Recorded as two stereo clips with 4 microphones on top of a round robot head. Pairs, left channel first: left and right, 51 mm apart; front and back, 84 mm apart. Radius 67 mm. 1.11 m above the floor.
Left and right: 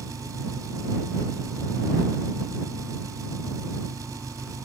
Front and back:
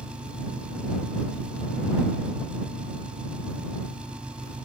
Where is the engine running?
100° right.